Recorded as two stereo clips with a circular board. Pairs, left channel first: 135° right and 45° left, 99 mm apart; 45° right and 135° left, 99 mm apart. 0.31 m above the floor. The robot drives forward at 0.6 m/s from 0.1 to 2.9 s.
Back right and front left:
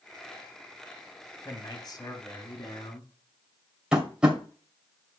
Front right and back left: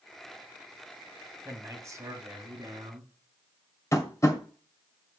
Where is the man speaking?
175° right, 1.4 m.